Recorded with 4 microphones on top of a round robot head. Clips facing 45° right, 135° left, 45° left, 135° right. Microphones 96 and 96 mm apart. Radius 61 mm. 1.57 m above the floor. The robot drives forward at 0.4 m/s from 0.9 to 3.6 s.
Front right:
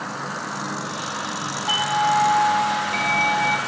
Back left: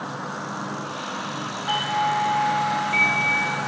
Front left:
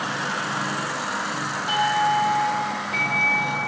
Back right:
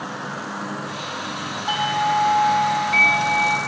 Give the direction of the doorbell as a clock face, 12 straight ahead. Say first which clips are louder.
Front right 3 dB, even; 3 o'clock.